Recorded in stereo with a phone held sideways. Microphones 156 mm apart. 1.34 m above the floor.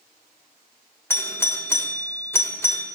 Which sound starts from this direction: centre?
A doorbell, at 1.1 s.